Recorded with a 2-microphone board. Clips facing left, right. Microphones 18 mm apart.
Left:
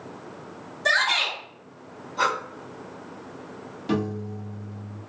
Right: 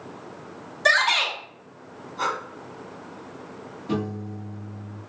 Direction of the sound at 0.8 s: 40° right (ahead or behind).